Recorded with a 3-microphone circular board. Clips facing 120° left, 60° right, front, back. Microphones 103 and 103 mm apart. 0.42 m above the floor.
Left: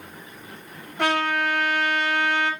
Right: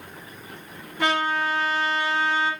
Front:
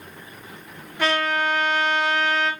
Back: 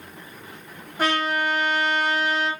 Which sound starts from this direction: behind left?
A trumpet, at 1.0 s.